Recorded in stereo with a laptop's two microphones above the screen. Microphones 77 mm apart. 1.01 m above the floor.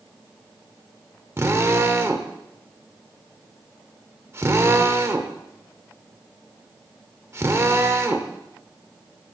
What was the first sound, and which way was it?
A drill, 35° right (ahead or behind).